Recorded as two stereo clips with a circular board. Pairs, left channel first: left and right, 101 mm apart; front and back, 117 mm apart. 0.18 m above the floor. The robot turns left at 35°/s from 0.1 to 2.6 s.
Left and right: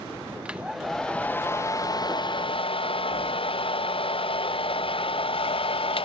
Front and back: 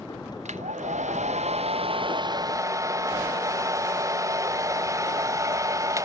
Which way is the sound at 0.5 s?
170° right.